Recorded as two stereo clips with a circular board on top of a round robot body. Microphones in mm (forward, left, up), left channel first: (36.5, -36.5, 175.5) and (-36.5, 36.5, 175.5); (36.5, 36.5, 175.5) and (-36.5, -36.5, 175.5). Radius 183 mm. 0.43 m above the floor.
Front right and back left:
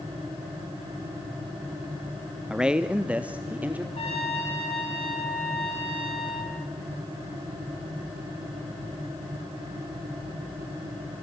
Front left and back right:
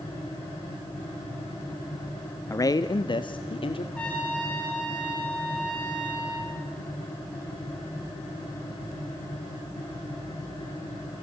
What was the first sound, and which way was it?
A man speaking, 60° left.